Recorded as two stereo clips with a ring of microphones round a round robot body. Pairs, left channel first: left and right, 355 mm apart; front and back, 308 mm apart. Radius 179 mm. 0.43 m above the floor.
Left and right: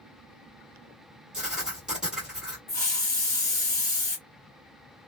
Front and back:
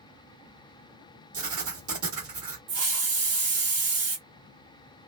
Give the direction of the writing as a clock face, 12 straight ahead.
6 o'clock.